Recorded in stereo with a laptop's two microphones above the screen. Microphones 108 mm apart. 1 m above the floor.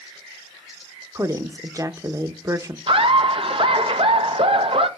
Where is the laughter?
55° right (ahead or behind), 0.7 m.